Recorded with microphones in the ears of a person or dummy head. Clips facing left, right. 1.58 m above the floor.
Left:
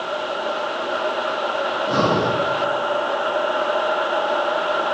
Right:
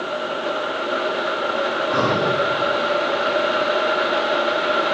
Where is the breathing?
35° left (ahead or behind), 3 m.